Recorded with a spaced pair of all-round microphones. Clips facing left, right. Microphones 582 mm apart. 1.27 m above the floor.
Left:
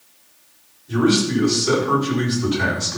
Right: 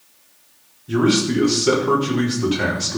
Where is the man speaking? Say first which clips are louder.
Even; 80° right, 4 m.